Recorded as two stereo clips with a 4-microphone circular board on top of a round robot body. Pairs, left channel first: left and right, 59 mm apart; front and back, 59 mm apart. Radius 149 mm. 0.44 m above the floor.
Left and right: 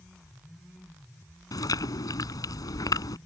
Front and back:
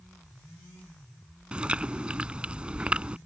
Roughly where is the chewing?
Left.